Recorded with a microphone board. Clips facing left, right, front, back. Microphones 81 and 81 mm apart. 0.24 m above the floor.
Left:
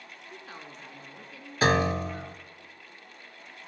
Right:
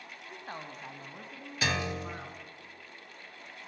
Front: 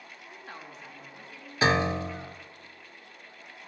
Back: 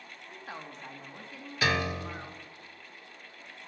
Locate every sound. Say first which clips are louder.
0.3 s a woman speaking: right 3 dB, back 2 dB; 105° right, 1.6 m; by 2.4 s 140° right, 3 m
1.6 s a piano: left 9 dB, front 5 dB; 55° left, 0.6 m